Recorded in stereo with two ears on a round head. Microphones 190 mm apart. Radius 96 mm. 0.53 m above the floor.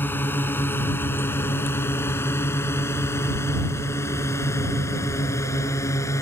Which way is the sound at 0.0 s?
10° left (ahead or behind).